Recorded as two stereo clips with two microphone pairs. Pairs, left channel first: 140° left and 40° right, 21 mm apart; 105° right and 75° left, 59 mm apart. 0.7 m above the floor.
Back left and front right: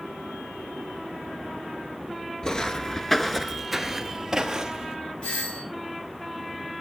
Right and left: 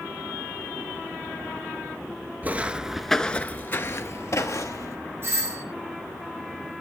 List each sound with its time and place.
2.4 s footsteps: 100° left, 0.8 m; by 5.0 s 100° right, 1.4 m
5.2 s a doorbell: 120° left, 6.5 m